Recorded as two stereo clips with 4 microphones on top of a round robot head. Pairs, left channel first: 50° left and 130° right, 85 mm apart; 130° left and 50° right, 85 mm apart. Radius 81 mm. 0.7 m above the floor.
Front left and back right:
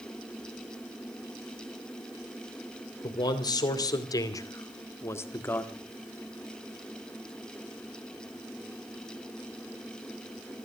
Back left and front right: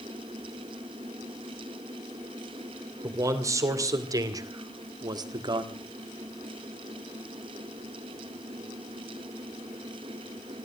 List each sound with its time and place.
3.0 s a man speaking: 5° left, 2.5 m; by 5.8 s 20° right, 1.6 m